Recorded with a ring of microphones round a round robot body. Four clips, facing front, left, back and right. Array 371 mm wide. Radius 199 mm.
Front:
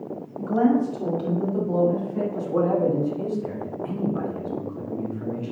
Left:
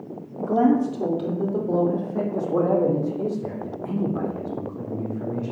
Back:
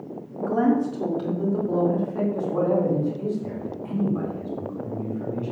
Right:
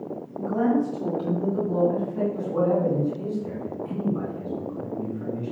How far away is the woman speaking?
About 1.9 m.